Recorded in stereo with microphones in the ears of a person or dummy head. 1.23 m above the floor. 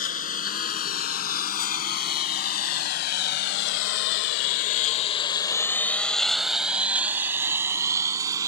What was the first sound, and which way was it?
A lawn mower, 45° left (ahead or behind).